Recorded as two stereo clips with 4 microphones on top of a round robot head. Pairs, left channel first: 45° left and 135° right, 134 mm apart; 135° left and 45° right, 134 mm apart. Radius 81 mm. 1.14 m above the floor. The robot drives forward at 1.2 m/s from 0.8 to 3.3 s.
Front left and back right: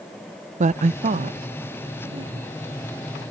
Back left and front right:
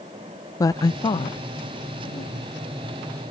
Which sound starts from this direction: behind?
A woman speaking, at 0.6 s.